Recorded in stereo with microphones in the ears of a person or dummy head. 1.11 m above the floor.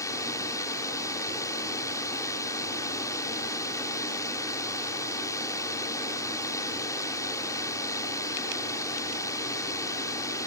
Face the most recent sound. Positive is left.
turn(degrees=15)  # may be behind; listen again after turning